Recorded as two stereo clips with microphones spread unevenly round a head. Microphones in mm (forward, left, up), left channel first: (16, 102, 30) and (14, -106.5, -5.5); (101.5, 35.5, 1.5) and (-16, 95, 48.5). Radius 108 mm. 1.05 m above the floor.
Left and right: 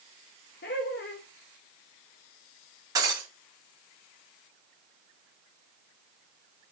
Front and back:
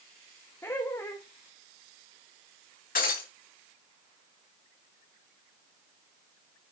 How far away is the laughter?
About 1.2 m.